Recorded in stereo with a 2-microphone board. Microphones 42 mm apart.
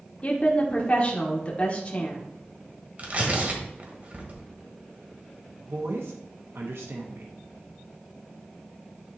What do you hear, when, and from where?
0.2 s a woman speaking: 35° left (ahead or behind), 1.1 m
3.0 s tearing paper: 40° right (ahead or behind), 1.4 m
5.7 s a woman speaking: 75° right (ahead or behind), 0.9 m